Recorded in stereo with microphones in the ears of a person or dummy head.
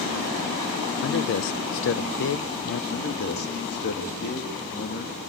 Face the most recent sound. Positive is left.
turn(degrees=50)  # may be behind; listen again after turning